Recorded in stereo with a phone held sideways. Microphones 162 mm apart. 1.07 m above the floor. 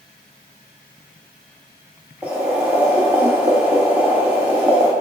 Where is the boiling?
5° right (ahead or behind), 0.7 m.